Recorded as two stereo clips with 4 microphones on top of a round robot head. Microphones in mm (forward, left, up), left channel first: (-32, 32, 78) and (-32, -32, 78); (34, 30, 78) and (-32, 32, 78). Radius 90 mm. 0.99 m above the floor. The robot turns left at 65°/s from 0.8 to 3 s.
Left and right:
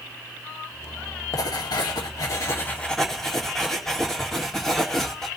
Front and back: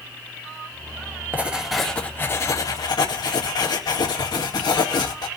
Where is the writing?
115° left, 2 m; by 5.3 s 5° left, 2 m.